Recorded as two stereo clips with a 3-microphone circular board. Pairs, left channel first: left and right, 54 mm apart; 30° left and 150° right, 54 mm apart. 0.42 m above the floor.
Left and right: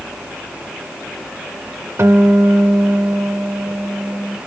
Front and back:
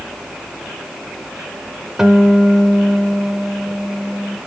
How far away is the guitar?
About 0.8 m.